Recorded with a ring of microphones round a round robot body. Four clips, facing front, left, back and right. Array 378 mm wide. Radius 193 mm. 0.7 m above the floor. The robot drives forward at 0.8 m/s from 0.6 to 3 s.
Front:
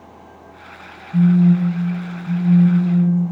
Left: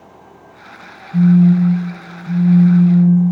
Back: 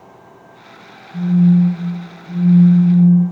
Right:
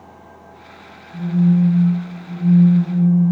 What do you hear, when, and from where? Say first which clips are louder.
1.1 s a phone buzzing: left 6 dB, back 1 dB; 35° left, 4.5 m; by 3.3 s 55° left, 3.5 m